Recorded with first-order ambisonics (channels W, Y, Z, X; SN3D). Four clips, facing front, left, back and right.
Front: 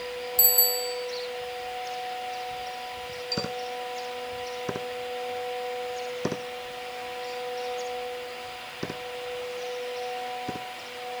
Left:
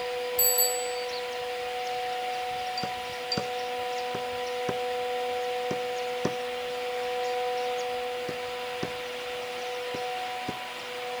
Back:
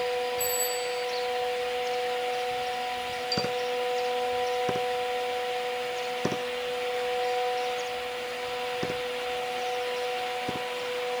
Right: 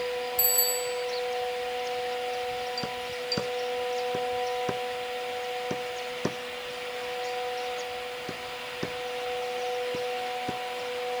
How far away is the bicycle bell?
About 6.5 m.